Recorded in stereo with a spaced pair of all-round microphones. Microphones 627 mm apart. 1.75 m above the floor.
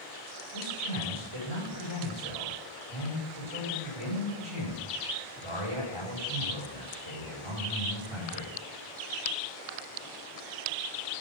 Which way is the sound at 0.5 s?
50° right (ahead or behind).